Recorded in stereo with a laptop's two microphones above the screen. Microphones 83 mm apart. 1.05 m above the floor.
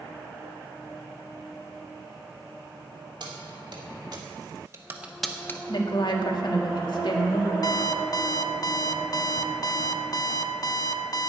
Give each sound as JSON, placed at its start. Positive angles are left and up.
{"t": 3.2, "sound": "keys jangling", "side_deg": -65, "distance_m": 2.5}
{"t": 5.7, "sound": "a woman speaking", "side_deg": 60, "distance_m": 1.8}
{"t": 7.6, "sound": "an alarm clock", "side_deg": 50, "distance_m": 0.8}